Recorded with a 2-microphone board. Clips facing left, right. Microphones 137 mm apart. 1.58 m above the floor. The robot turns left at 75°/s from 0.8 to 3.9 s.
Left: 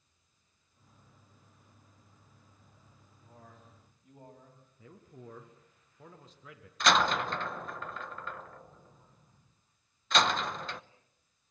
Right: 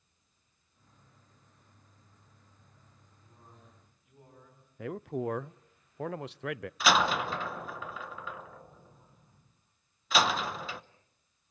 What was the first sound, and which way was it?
A man speaking, 100° left.